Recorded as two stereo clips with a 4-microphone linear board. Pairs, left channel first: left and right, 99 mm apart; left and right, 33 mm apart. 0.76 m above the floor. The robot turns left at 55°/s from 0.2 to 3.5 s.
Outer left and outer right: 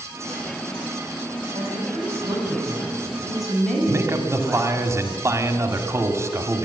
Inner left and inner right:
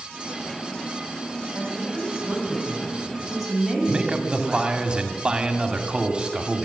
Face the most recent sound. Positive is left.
turn(degrees=-30)  # may be behind; listen again after turning